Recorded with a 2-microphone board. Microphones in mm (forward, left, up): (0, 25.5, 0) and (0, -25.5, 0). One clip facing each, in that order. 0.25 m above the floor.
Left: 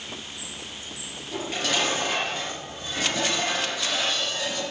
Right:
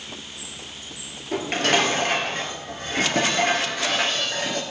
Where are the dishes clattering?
55° right (ahead or behind), 3.5 m.